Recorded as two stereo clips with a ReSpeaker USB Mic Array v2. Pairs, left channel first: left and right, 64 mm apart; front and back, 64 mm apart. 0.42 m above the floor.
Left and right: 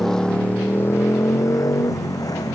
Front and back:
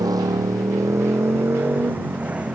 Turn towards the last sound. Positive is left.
turn(degrees=110)